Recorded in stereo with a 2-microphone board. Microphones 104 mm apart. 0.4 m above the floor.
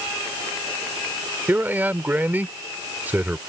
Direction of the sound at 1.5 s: 20° right (ahead or behind).